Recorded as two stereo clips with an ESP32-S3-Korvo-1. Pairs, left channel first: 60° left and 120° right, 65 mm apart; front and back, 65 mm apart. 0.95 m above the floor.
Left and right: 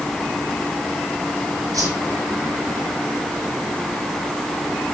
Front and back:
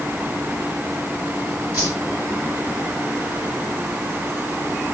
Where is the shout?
I don't hear a shout.